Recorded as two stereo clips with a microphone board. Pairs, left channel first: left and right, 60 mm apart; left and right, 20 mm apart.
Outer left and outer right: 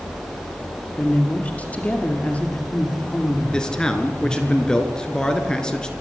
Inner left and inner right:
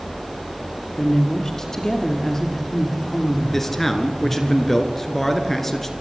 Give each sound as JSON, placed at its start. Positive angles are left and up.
{"t": 1.0, "sound": "a woman speaking", "side_deg": 25, "distance_m": 3.5}
{"t": 3.5, "sound": "a man speaking", "side_deg": 10, "distance_m": 2.5}